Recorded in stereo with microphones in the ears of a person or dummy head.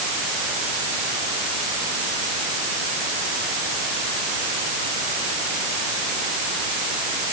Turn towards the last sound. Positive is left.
No sound to turn to.